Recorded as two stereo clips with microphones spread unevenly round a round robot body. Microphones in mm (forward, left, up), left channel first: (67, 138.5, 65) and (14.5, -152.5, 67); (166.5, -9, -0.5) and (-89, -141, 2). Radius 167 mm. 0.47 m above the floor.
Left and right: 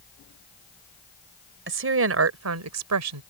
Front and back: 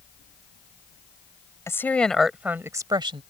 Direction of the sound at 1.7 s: 55° right.